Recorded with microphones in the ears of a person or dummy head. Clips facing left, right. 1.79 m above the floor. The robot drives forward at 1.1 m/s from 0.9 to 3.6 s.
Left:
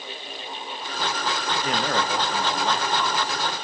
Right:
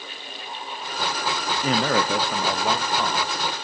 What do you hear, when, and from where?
1.6 s a man speaking: 85° right, 1.1 m; by 3.4 s 25° right (ahead or behind), 2.5 m